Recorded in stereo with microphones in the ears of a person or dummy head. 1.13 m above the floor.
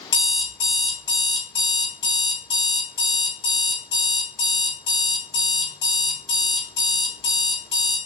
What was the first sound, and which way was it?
An alarm clock, 60° left (ahead or behind).